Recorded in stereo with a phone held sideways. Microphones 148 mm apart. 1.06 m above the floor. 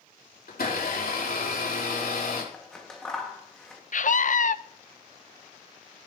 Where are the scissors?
5° left (ahead or behind), 1.7 m.